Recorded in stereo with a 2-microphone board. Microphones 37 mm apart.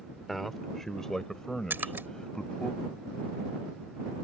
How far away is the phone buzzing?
No phone buzzing in this recording.